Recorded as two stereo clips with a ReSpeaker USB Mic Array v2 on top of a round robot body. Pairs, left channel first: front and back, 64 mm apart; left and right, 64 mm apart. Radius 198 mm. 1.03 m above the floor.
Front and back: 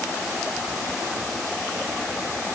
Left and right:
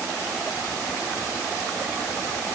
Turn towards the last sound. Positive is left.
No sound to turn to.